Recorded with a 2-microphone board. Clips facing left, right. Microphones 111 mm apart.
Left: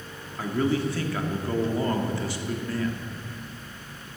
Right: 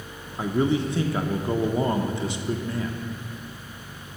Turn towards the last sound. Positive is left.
turn(degrees=-20)  # may be behind; listen again after turning